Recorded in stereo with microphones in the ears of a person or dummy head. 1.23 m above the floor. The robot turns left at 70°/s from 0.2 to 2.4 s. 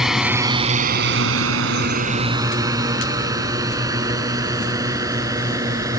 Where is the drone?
5° right (ahead or behind); by 6.0 s 20° right (ahead or behind).